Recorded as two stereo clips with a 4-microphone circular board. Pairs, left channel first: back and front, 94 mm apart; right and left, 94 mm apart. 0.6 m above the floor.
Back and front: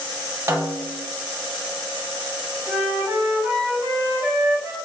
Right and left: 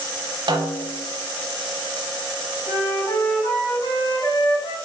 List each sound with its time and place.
0.5 s a snare drum: 60° left, 0.7 m
2.7 s a flute: 70° right, 2 m